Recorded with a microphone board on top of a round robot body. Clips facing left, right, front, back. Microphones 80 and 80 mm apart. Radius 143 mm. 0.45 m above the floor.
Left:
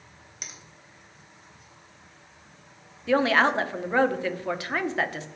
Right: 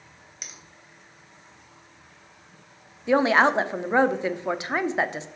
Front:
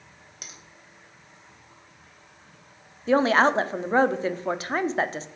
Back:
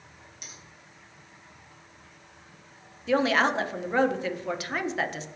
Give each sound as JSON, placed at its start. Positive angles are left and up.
{"t": 0.4, "sound": "a finger snap", "azimuth_deg": 0, "distance_m": 2.5}
{"t": 3.1, "sound": "a woman speaking", "azimuth_deg": -30, "distance_m": 0.9}